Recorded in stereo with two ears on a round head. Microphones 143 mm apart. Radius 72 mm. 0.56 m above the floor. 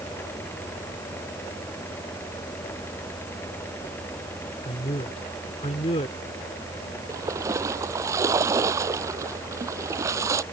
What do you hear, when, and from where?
4.7 s a man speaking: 40° left (ahead or behind)
7.1 s a splash: 20° right (ahead or behind)